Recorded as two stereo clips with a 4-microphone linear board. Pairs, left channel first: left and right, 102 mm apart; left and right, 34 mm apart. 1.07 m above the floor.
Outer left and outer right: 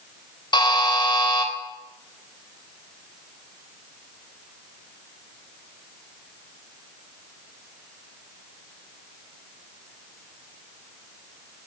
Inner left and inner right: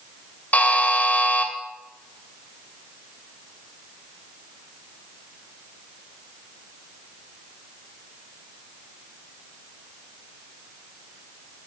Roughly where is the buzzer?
Left.